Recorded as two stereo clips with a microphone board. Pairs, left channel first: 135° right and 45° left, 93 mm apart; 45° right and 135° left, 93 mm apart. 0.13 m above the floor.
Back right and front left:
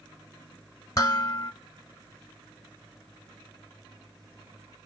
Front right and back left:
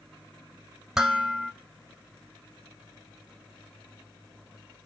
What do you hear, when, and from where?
1.0 s dishes clattering: 145° right, 0.9 m